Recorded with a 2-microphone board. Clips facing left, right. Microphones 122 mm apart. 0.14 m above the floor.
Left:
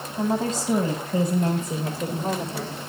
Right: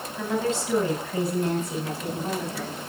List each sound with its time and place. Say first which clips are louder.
0.2 s a woman speaking: left 2 dB; 35° left (ahead or behind), 8 m; by 2.8 s 40° left (ahead or behind), 6.5 m